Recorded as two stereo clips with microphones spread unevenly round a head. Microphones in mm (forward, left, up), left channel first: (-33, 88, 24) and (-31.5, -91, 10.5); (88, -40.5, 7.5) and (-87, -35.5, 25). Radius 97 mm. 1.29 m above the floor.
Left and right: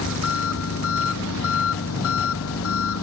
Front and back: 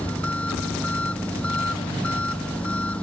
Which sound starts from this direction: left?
An engine running, at 0.0 s.